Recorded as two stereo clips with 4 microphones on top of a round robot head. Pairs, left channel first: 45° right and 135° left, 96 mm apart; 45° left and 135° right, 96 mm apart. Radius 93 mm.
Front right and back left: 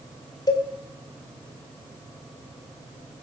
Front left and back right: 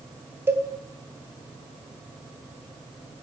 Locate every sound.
0.5 s a cowbell: 80° right, 2.5 m